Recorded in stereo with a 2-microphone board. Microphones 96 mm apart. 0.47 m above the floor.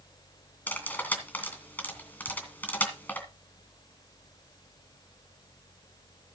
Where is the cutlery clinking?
20° left (ahead or behind), 2.5 m.